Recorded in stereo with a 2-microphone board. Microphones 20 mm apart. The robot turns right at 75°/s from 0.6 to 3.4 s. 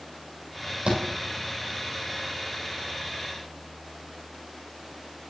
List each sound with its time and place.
0.9 s a thud: 85° right, 2.5 m; by 1.0 s 80° right, 2.5 m